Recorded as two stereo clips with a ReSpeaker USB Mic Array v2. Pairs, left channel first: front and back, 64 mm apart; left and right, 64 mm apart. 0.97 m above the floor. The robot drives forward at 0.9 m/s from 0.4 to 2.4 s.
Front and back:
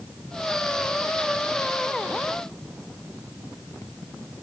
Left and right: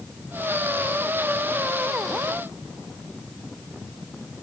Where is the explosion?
No explosion in this recording.